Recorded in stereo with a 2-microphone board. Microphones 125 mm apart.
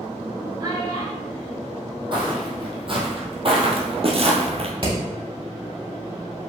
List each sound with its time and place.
0.6 s a child speaking: 30° right (ahead or behind), 3 m
2.1 s footsteps: 40° right (ahead or behind), 2.5 m; by 4.7 s 55° right (ahead or behind), 1.7 m
4.8 s hammering: 45° right (ahead or behind), 3.5 m